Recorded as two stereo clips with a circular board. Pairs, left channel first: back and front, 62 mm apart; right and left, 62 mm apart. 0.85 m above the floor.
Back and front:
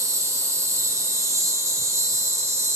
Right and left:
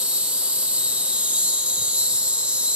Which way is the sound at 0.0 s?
25° left.